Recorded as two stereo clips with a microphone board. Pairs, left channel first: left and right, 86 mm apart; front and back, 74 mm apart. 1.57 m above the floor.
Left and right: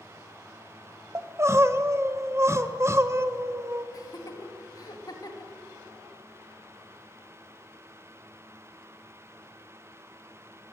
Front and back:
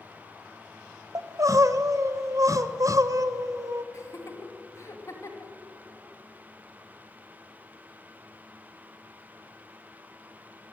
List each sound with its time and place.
1.1 s crying: 145° right, 1.1 m
3.9 s laughter: 45° left, 3 m